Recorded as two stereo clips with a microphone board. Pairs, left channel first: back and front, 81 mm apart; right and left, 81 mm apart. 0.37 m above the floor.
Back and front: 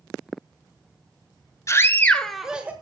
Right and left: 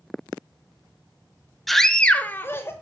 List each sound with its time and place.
1.7 s a scream: straight behind, 1.1 m; by 2.7 s 60° right, 1.2 m